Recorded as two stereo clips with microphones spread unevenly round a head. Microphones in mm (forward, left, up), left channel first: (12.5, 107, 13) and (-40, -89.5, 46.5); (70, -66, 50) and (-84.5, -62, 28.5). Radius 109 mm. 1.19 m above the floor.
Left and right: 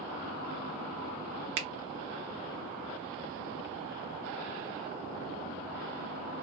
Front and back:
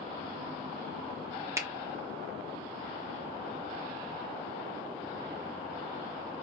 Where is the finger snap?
120° right, 0.7 m.